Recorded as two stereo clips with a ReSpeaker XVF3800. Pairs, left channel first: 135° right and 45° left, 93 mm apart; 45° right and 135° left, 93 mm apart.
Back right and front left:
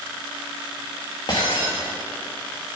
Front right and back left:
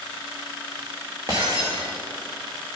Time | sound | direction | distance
1.3 | breaking glass | 175° right | 2.5 m